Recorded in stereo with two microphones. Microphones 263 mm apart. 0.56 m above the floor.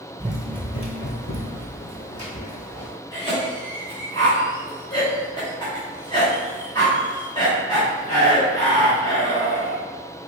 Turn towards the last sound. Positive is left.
turn(degrees=15)  # may be behind; listen again after turning